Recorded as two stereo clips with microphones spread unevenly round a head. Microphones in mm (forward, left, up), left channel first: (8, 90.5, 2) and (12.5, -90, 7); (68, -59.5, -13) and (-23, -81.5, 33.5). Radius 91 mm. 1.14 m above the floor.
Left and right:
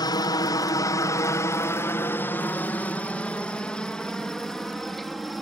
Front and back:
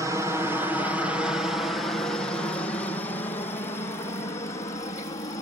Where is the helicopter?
105° left; by 5.4 s straight ahead.